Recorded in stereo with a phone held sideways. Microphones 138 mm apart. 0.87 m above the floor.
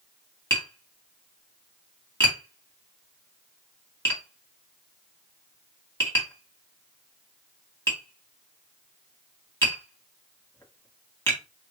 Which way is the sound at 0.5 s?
15° left (ahead or behind).